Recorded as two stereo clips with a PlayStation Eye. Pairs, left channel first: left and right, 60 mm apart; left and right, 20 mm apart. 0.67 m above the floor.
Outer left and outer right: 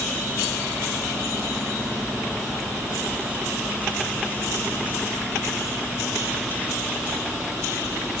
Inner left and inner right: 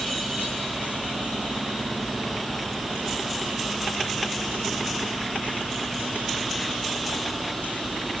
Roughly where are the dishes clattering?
I don't hear dishes clattering.